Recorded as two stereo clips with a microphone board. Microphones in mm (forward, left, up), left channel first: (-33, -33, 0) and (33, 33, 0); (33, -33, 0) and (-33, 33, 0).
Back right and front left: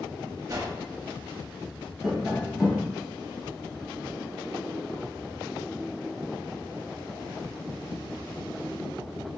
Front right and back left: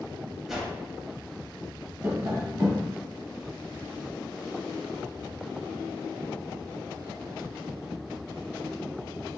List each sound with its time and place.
0.5 s a whoosh: 50° left, 0.7 m
2.0 s tapping: 120° left, 1.2 m